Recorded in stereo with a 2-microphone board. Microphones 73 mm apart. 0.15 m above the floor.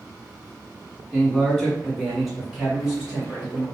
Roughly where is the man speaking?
Centre.